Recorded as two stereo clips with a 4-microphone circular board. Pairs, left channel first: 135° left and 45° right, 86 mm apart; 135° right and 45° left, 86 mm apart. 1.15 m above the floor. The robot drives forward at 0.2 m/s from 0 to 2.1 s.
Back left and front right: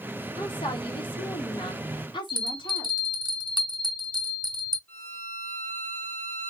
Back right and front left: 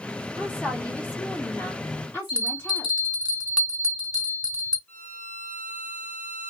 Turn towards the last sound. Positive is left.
turn(degrees=175)